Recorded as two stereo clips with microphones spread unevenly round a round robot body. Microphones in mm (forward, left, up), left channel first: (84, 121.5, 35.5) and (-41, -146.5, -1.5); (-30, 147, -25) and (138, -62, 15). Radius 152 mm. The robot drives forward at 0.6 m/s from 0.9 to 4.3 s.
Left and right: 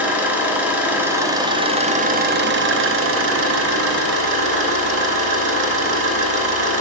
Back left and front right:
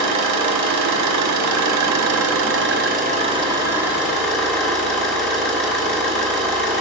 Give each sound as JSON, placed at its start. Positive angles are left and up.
{"t": 0.0, "sound": "an engine running", "azimuth_deg": -35, "distance_m": 1.3}